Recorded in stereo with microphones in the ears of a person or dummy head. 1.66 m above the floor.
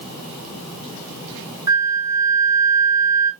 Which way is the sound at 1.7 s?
30° right (ahead or behind).